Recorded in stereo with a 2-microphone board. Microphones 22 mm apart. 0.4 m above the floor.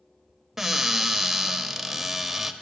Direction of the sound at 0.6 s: 15° right (ahead or behind).